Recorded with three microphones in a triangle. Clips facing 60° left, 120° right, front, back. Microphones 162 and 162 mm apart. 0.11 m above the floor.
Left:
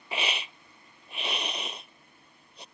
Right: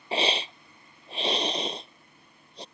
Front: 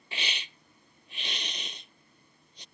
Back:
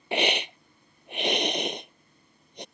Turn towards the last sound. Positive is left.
turn(degrees=-175)